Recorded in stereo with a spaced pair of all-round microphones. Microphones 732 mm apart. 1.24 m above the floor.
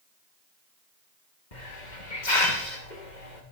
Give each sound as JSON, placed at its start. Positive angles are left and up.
{"t": 1.5, "sound": "a hiss", "side_deg": 75, "distance_m": 2.5}